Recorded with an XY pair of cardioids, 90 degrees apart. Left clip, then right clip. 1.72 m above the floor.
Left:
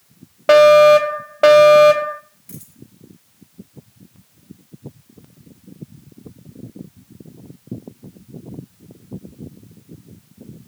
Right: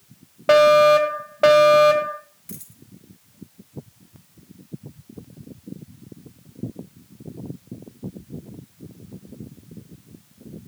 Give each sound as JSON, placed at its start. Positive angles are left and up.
{"t": 0.5, "sound": "a fire alarm", "azimuth_deg": 25, "distance_m": 1.6}
{"t": 2.5, "sound": "a dropped coin", "azimuth_deg": -25, "distance_m": 3.5}